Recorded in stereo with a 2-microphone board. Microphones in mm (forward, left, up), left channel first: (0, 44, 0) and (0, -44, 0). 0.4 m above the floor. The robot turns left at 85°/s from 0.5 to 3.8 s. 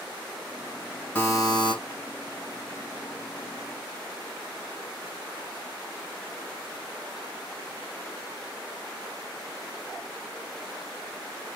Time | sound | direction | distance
1.1 | a buzzer | 155° left | 1.8 m